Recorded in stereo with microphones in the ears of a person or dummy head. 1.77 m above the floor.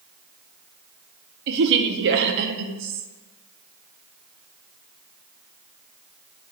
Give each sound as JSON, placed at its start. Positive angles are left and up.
{"t": 1.5, "sound": "a woman speaking", "side_deg": -60, "distance_m": 1.2}